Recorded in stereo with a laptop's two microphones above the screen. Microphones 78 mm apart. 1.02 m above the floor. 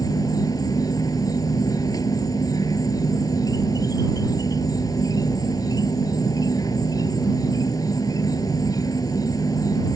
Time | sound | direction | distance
0.0 | an insect | 50° left (ahead or behind) | ?